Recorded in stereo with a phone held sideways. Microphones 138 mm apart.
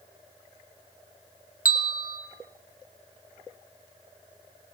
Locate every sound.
1.6 s a bell: 85° left, 2.5 m